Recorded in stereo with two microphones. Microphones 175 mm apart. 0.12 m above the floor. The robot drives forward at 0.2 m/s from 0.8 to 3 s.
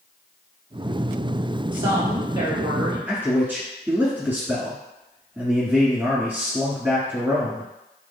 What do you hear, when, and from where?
1.7 s a woman speaking: 25° right (ahead or behind), 1.1 m
3.1 s a man speaking: 10° right (ahead or behind), 1.1 m